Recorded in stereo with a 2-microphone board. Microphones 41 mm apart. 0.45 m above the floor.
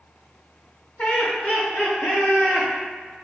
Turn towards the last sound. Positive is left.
turn(degrees=60)  # may be behind; listen again after turning